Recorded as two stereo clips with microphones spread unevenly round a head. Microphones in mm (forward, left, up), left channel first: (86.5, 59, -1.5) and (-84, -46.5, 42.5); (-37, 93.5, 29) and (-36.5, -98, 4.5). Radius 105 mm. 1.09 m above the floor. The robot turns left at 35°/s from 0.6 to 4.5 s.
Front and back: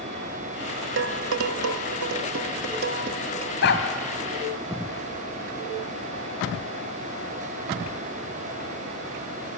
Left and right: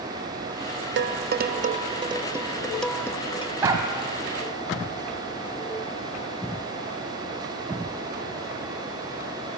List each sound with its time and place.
1.0 s dishes clattering: 120° right, 1.1 m; by 3.5 s 150° left, 1.1 m
3.6 s a dog barking: 10° right, 2 m; by 3.9 s 20° right, 2 m